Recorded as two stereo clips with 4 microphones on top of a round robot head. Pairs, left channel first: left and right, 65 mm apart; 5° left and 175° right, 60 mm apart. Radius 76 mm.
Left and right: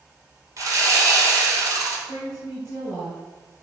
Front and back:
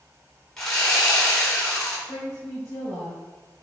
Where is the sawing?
75° right, 2.5 m.